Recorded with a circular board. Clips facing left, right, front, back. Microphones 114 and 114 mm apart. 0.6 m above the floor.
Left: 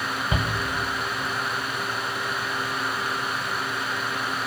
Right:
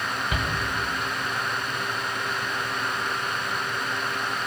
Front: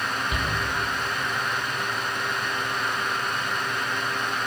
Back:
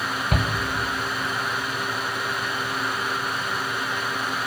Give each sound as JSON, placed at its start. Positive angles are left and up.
{"t": 0.3, "sound": "a shout", "azimuth_deg": 155, "distance_m": 3.0}